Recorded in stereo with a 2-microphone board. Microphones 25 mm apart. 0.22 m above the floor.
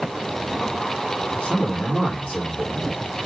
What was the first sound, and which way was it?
A man speaking, 60° left (ahead or behind).